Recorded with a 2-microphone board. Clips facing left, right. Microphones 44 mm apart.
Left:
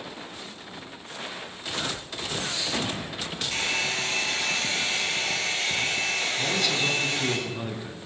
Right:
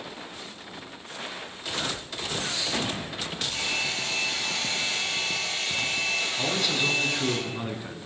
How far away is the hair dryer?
About 4 m.